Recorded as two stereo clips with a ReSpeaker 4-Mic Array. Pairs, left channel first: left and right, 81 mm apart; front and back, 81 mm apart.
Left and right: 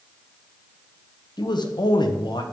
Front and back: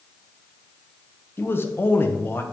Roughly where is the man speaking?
Ahead left.